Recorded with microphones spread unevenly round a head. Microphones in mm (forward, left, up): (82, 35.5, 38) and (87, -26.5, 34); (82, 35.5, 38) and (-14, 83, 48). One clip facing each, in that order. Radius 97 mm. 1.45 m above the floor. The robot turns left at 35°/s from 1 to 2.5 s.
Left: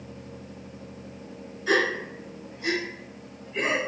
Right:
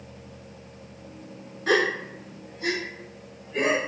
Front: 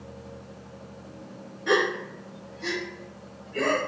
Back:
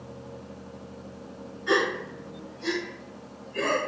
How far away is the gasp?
About 0.7 m.